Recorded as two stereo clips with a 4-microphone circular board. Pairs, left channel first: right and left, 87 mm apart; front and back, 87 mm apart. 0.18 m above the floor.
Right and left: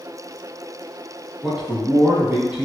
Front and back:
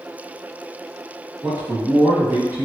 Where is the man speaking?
160° left, 1.2 m.